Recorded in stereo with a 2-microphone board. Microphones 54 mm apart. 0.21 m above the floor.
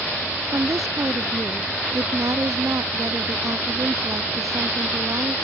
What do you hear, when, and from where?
0.5 s a woman speaking: 75° right (ahead or behind)